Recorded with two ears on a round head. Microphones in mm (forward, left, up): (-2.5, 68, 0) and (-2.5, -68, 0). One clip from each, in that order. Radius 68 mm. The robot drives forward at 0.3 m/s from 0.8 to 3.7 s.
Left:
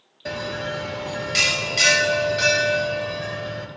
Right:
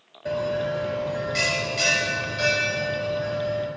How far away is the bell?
About 0.8 m.